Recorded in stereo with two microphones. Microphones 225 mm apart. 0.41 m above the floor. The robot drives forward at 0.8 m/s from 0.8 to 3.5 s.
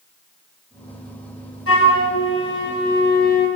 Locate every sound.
1.7 s a flute: 80° left, 1.5 m; by 3.5 s 40° left (ahead or behind), 2.5 m